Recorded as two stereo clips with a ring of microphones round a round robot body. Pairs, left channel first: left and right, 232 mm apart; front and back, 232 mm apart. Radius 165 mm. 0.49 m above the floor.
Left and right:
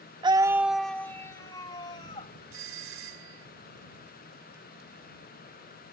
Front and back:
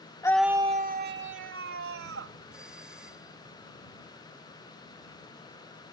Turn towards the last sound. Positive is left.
turn(degrees=-95)